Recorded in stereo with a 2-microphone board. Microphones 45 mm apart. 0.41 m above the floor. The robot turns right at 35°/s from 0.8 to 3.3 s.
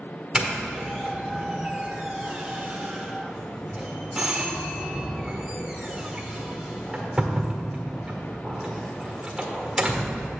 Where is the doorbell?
15° right (ahead or behind), 1.4 m.